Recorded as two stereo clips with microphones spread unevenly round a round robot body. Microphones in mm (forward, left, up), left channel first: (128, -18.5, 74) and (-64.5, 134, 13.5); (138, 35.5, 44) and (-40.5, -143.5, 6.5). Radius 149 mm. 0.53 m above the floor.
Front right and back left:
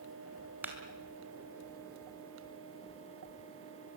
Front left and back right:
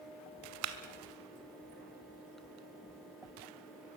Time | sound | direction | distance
0.6 | a clap | 140° right | 2 m